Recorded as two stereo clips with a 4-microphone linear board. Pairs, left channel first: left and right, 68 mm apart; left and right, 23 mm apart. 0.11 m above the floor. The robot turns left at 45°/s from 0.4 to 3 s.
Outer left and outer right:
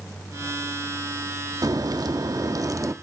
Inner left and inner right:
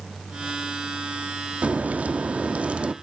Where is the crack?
70° right, 0.6 m; by 2.9 s 130° right, 0.6 m.